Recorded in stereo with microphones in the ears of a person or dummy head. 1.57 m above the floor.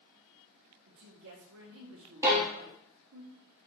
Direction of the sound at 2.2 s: 10° right (ahead or behind).